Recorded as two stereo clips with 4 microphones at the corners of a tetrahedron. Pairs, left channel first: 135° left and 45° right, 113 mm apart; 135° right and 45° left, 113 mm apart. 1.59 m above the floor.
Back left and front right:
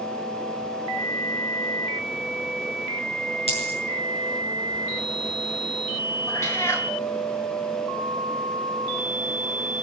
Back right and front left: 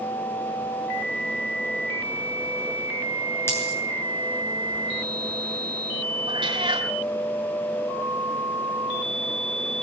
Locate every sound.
3.5 s a dropped coin: 160° left, 8 m
6.3 s a cat meowing: 75° left, 2.5 m